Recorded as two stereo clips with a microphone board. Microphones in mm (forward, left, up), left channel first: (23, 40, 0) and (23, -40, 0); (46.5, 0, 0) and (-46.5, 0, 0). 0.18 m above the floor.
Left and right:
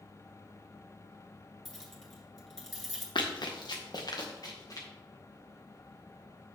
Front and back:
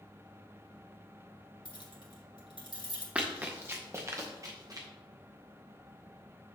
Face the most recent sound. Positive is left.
turn(degrees=130)